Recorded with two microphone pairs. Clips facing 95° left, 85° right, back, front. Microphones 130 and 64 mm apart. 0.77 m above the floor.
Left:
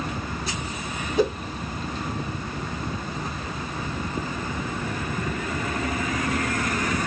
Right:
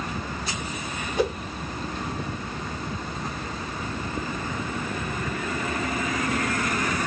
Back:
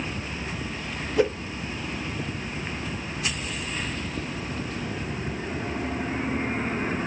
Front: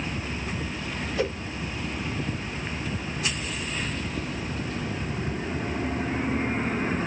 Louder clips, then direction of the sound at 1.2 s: Left 3 dB, back 6 dB; straight behind.